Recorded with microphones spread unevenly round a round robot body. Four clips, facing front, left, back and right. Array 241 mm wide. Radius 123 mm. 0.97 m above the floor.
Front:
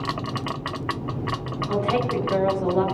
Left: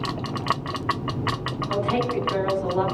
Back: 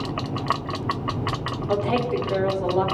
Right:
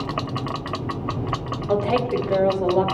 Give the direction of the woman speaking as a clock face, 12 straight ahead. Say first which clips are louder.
Right 3 dB, even; 4 o'clock.